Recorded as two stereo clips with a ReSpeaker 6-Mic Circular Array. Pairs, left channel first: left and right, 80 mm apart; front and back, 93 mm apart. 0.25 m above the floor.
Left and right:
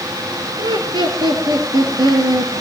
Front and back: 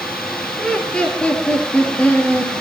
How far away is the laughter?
About 4 m.